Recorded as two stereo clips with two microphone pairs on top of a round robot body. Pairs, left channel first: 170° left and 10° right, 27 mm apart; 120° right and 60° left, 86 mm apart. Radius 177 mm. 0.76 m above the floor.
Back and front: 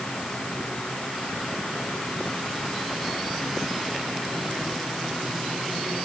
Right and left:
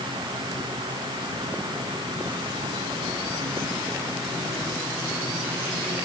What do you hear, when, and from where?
Only background noise.